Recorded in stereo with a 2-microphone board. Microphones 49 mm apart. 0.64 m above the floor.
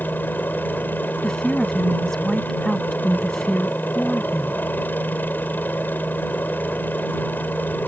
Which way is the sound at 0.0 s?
40° left (ahead or behind).